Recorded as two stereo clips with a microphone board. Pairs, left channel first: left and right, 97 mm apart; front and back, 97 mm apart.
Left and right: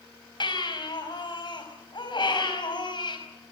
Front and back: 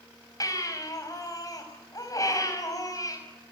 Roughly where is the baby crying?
Ahead left.